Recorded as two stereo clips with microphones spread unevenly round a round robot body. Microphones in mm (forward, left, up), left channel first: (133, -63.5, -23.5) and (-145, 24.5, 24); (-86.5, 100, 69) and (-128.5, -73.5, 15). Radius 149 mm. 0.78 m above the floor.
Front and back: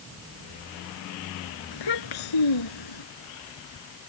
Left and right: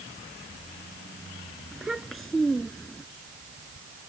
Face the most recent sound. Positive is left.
turn(degrees=-10)